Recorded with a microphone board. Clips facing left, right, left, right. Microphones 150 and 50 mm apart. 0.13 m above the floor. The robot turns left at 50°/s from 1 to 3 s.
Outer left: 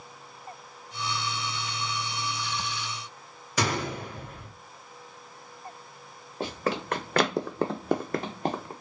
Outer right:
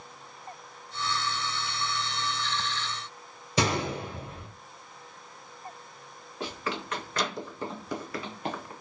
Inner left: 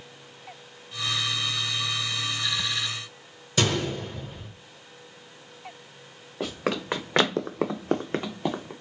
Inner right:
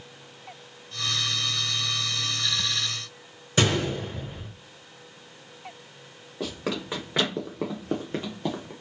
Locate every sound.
3.6 s a gunshot: 30° right (ahead or behind), 1.4 m
6.4 s running footsteps: 40° left (ahead or behind), 0.8 m; by 8.7 s 30° left (ahead or behind), 0.7 m